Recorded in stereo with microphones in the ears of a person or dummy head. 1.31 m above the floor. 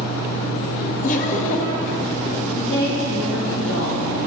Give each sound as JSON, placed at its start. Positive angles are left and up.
{"t": 1.0, "sound": "laughter", "side_deg": 45, "distance_m": 1.8}
{"t": 2.5, "sound": "a woman speaking", "side_deg": 75, "distance_m": 3.5}